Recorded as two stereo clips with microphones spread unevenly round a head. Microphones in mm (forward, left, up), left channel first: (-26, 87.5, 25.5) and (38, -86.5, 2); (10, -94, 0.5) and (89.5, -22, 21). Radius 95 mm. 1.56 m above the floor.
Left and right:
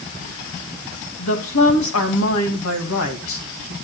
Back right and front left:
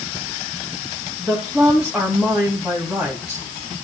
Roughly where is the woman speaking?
Behind left.